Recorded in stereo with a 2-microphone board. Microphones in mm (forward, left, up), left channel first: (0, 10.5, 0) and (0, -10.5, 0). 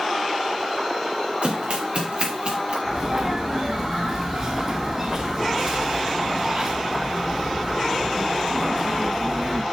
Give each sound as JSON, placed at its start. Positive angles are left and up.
{"t": 1.4, "sound": "running footsteps", "side_deg": -75, "distance_m": 5.0}
{"t": 2.9, "sound": "a sneeze", "side_deg": -45, "distance_m": 3.5}